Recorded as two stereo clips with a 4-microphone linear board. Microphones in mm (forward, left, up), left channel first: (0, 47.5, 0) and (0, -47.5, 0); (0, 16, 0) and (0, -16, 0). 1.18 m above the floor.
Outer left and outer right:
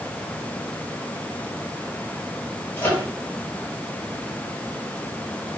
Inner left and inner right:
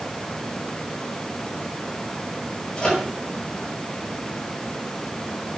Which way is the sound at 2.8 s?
20° left (ahead or behind).